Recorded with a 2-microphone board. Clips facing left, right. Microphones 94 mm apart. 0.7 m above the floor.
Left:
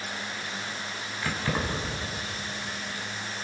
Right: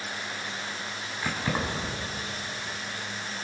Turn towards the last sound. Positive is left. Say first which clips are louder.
# even
turn(degrees=-15)  # may be behind; listen again after turning